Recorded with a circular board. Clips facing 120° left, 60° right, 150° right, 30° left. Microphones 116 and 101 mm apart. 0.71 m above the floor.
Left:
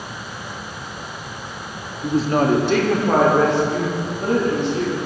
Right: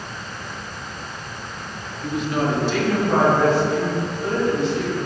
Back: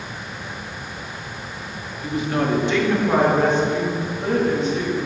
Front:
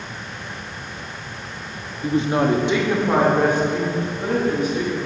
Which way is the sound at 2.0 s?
60° left.